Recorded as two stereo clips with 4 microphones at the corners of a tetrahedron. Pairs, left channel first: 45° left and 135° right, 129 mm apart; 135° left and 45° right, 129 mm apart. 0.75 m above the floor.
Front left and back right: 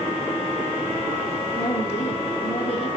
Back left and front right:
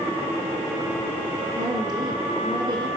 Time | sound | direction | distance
1.6 | a woman speaking | 5° left | 1.9 m